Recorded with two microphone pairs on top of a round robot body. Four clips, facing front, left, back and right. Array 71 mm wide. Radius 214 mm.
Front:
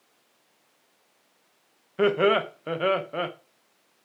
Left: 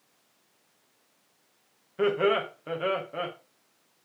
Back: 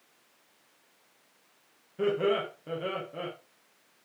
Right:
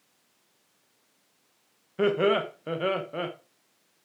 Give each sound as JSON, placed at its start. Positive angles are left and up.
{"t": 2.0, "sound": "laughter", "azimuth_deg": 0, "distance_m": 1.0}